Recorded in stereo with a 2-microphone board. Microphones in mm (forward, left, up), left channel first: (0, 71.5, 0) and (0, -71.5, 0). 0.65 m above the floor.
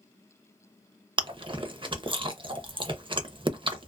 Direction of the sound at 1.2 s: 40° right (ahead or behind).